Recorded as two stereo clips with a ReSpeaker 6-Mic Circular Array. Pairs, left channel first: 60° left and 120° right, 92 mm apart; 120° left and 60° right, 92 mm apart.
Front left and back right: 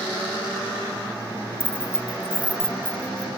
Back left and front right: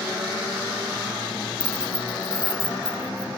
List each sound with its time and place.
1.6 s keys jangling: 5° left; by 3.3 s 65° right